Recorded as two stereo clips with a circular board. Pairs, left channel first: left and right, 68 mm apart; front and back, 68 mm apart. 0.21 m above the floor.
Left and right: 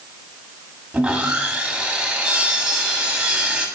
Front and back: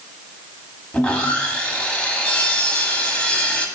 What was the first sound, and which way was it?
Sawing, 35° right.